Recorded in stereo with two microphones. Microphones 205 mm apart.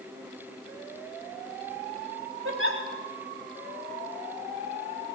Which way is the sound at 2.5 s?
85° right.